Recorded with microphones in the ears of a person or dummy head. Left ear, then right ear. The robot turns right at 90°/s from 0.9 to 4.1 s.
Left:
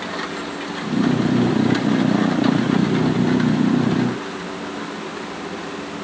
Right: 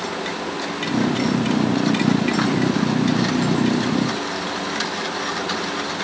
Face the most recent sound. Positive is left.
No sound to turn to.